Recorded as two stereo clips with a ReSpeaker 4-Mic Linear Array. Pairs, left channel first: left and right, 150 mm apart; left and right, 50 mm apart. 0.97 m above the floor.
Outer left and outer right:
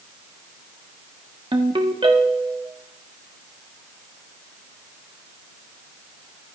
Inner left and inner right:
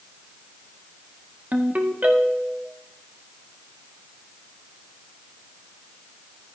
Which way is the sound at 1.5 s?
35° right (ahead or behind).